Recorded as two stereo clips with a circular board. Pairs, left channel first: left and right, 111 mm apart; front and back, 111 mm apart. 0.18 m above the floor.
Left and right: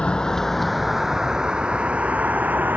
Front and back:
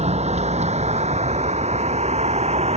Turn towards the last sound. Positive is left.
turn(degrees=-165)